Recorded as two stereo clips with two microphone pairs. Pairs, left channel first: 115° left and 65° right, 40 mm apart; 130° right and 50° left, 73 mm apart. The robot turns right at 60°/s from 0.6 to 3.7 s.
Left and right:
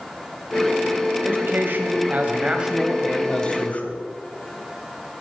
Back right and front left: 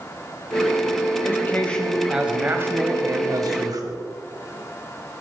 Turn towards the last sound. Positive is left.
turn(degrees=65)